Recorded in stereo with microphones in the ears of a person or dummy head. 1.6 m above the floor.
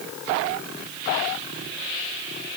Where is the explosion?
No explosion in this recording.